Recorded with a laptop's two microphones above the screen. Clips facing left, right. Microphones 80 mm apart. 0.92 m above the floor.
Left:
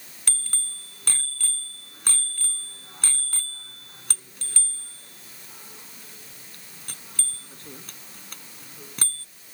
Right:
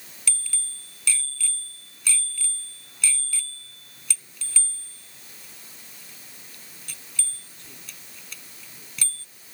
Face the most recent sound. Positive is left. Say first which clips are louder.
# even
turn(degrees=50)  # may be behind; listen again after turning